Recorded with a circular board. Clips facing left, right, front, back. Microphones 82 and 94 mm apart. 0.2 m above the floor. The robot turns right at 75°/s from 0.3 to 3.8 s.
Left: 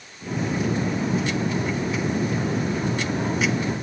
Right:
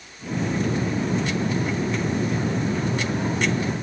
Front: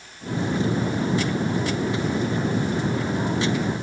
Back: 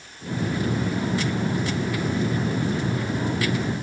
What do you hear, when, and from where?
Only background noise.